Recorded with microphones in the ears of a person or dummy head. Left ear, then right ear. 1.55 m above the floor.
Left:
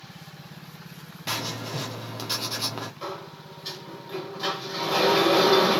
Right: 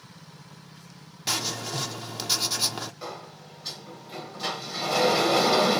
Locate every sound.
1.3 s writing: 10° right (ahead or behind), 0.5 m
3.0 s a sliding door: centre (ahead or behind), 0.9 m